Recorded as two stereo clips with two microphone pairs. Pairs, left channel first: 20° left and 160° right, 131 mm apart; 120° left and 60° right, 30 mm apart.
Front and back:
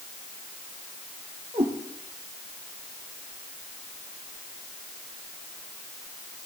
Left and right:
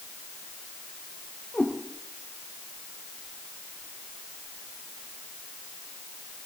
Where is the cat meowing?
160° left, 4 m.